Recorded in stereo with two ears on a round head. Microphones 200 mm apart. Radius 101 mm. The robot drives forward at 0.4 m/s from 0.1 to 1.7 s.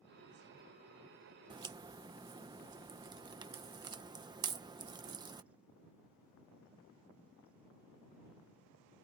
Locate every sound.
1.5 s a crack: 20° right (ahead or behind)